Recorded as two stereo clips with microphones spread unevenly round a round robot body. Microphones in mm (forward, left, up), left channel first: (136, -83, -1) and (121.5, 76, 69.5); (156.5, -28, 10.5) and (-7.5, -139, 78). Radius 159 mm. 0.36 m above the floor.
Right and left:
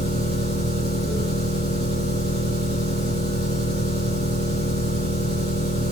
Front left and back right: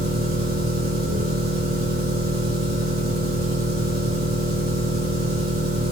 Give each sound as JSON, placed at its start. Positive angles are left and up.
{"t": 0.0, "sound": "an engine running", "azimuth_deg": -135, "distance_m": 9.5}